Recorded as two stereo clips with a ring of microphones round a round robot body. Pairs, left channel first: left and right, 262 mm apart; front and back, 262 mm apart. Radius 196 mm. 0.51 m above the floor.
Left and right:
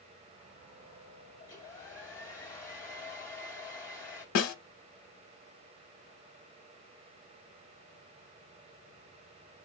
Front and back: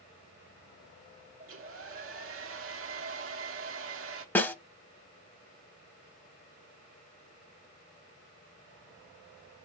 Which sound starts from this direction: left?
A snare drum, at 4.3 s.